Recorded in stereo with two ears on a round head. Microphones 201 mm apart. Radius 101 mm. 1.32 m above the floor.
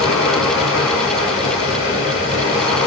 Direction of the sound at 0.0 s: 30° left (ahead or behind).